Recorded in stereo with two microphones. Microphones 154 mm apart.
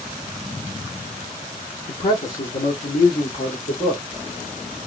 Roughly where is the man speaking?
Left.